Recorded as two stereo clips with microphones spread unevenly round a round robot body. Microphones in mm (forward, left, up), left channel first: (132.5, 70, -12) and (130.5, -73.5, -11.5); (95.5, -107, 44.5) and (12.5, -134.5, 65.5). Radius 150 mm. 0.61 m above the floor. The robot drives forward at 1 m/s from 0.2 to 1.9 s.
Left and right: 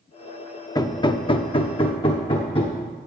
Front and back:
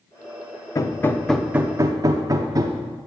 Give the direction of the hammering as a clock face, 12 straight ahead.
11 o'clock.